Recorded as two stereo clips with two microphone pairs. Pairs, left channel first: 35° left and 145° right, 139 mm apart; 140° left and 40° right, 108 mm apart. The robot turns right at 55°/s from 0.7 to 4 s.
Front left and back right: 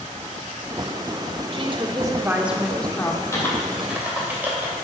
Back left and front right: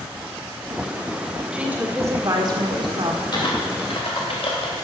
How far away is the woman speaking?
About 1.5 m.